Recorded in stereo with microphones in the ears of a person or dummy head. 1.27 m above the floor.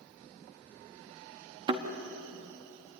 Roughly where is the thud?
Right.